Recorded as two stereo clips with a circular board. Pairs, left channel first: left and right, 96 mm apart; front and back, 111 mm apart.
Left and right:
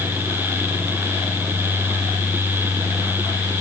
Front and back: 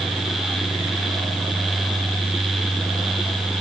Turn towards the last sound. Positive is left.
No sound to turn to.